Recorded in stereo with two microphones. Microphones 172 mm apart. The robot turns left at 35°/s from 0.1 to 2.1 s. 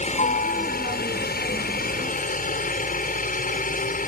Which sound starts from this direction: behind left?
A helicopter, at 0.0 s.